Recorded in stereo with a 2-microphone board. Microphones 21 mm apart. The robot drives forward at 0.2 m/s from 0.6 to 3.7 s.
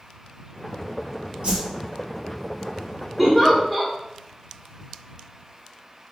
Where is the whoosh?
50° right (ahead or behind), 1.9 m.